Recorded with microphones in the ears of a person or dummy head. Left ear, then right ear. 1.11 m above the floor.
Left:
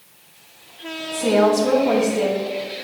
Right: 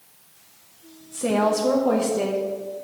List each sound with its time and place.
1.1 s a woman speaking: 5° left (ahead or behind), 0.9 m; by 2.5 s 20° right (ahead or behind), 1.7 m